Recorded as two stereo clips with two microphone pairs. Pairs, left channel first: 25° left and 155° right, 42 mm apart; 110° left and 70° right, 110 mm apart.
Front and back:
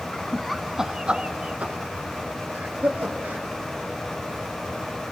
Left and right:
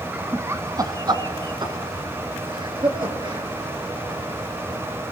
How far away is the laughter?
About 1.1 m.